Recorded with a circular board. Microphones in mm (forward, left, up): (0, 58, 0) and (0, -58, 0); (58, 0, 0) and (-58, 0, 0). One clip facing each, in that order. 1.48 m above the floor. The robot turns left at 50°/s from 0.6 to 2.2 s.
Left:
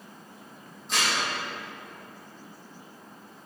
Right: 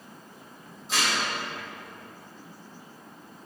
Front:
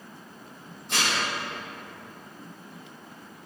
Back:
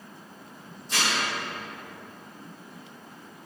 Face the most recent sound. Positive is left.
turn(degrees=-70)